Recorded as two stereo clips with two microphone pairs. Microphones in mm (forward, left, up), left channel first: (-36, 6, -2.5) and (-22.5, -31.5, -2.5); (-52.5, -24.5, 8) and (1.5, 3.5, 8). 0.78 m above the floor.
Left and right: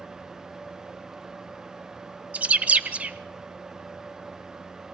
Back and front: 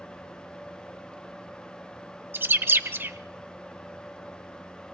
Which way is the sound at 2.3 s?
20° right.